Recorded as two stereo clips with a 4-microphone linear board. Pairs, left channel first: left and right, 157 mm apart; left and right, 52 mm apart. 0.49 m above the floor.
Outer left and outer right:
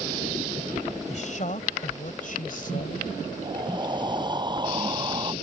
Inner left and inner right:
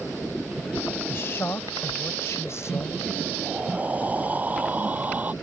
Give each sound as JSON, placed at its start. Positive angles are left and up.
{"t": 1.1, "sound": "a woman speaking", "side_deg": 55}
{"t": 3.4, "sound": "breathing", "side_deg": -30}